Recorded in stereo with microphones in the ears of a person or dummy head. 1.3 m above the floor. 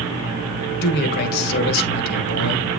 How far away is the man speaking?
About 1.7 m.